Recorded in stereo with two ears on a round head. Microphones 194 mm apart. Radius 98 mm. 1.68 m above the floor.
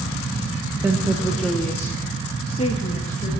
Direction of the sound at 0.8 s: 10° right (ahead or behind).